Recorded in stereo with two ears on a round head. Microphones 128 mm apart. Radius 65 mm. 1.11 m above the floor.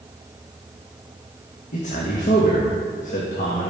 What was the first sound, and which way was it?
A man speaking, 55° left (ahead or behind).